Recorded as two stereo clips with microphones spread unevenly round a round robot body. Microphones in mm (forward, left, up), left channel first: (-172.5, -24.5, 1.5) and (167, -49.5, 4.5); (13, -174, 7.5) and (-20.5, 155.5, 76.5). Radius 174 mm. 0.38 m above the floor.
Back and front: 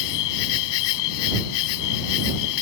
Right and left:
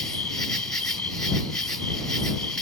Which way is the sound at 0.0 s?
170° right.